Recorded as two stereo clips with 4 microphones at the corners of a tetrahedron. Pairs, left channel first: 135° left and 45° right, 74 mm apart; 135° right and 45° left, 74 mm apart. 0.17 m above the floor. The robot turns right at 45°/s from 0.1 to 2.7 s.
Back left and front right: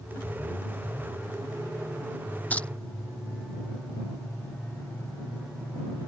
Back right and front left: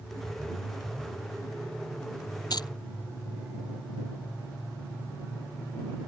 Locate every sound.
2.5 s keys jangling: 155° right; by 2.7 s 145° right